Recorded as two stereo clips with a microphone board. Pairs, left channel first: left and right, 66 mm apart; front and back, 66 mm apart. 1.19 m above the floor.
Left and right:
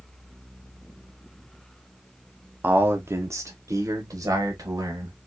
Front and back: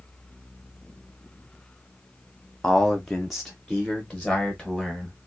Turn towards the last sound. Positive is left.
turn(degrees=-95)